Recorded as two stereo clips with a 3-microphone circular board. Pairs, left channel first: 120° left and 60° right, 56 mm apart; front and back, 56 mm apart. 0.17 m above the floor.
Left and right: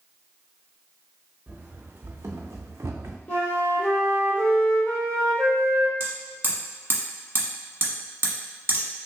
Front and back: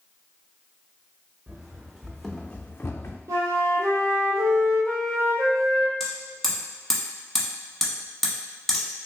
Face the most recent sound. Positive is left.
turn(degrees=-80)